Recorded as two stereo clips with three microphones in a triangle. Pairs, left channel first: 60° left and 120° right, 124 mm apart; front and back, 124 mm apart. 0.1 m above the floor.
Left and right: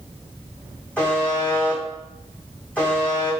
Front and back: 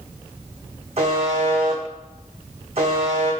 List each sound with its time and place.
1.0 s a buzzer: 140° left, 1.5 m